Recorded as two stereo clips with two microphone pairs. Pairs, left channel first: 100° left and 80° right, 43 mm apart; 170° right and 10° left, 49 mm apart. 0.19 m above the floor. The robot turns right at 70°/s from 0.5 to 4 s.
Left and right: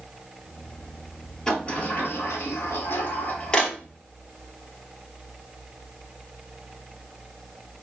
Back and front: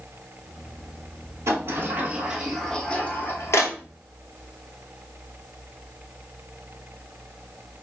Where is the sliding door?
25° left, 1.2 m; by 3.8 s 175° right, 1.2 m.